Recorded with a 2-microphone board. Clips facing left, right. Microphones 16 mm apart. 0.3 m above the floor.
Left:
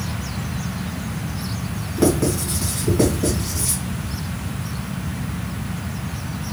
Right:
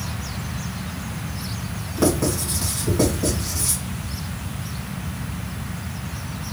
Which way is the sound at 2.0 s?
Centre (ahead or behind).